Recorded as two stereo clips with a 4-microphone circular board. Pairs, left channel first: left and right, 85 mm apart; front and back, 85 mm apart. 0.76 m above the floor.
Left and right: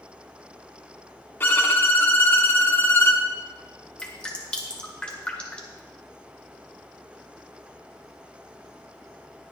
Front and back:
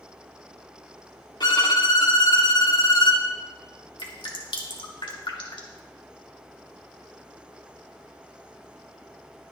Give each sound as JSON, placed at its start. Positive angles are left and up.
{"t": 1.4, "sound": "a violin", "azimuth_deg": 30, "distance_m": 1.6}
{"t": 4.0, "sound": "dripping", "azimuth_deg": 10, "distance_m": 2.0}